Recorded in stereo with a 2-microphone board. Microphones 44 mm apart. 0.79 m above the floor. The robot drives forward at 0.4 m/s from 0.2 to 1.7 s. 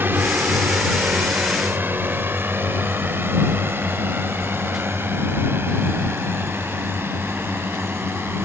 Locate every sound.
0.0 s a drone: 55° right (ahead or behind); by 8.4 s 65° right (ahead or behind)